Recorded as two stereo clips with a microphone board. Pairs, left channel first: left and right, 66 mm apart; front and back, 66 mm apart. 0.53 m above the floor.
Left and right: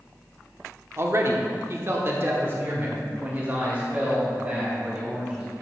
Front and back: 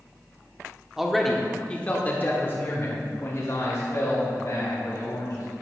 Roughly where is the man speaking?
Right.